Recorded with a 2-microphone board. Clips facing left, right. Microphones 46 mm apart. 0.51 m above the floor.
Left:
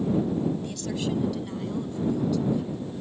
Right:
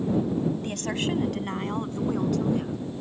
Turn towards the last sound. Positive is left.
turn(degrees=-50)  # may be behind; listen again after turning